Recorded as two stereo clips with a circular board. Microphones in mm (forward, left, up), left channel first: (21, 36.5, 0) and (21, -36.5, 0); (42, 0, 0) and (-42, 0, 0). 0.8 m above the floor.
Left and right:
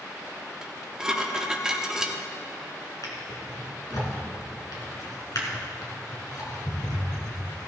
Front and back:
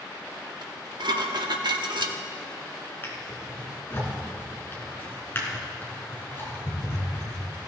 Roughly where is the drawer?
Ahead left.